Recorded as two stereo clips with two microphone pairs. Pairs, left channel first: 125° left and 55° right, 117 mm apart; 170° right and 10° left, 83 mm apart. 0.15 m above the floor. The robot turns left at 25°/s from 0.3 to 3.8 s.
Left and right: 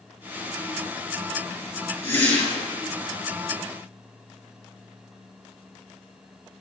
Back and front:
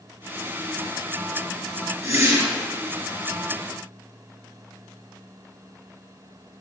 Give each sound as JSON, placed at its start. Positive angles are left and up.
{"t": 2.0, "sound": "a whoosh", "azimuth_deg": 60, "distance_m": 2.5}